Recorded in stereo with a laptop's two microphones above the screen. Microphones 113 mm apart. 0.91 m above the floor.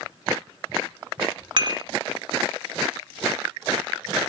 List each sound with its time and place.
1.6 s dishes clattering: 50° right (ahead or behind), 1.9 m